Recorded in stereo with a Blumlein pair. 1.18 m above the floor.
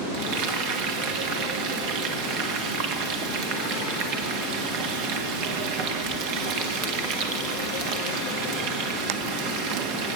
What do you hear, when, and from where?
0.1 s frying: 45° right, 1.7 m